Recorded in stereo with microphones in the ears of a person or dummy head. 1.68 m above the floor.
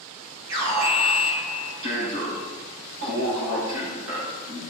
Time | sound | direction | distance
0.5 | an alarm | 65° right (ahead or behind) | 4 m